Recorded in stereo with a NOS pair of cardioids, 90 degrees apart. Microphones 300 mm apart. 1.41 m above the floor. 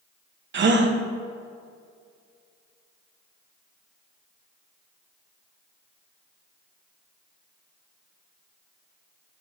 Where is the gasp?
40° right, 0.9 m.